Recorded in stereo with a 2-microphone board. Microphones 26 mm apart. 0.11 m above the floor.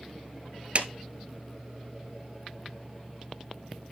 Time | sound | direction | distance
0.8 | a clap | 45° right (ahead or behind) | 1.2 m